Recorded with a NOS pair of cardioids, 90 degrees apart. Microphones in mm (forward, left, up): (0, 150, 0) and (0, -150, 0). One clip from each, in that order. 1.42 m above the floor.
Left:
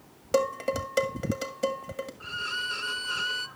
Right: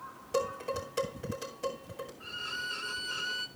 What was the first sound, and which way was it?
Dishes clattering, 70° left.